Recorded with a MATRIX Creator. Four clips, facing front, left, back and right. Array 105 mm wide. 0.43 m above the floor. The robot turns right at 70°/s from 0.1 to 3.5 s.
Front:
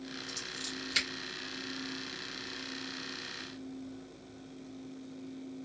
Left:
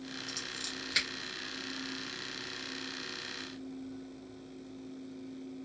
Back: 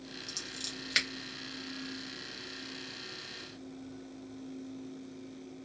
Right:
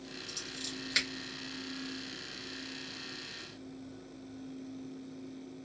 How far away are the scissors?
About 1.4 m.